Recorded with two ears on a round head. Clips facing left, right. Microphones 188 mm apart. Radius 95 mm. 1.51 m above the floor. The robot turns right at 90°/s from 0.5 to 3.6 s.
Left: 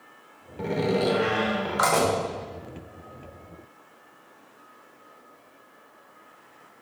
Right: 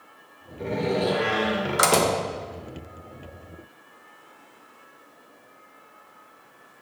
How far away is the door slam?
About 1.3 m.